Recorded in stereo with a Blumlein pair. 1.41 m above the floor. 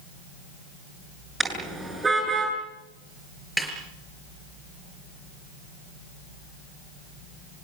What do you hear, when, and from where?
1.4 s a car horn: 10° right, 7.5 m; by 2.5 s 15° right, 8 m
3.6 s a snare drum: straight ahead, 5 m